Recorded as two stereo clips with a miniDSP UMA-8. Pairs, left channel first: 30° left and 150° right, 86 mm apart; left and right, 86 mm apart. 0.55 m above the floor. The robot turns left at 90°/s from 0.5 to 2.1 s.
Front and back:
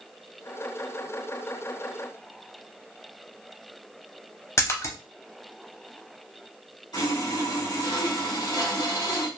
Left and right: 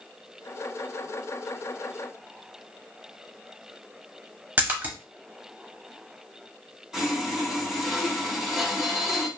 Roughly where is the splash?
Ahead right.